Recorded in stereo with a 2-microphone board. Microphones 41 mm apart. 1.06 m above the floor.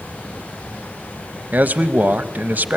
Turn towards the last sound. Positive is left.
turn(degrees=-45)  # may be behind; listen again after turning